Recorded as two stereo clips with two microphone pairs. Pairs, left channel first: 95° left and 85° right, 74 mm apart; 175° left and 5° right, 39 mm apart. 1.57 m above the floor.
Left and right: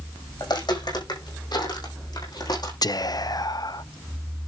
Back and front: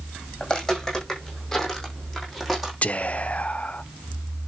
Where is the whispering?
120° left, 0.6 m.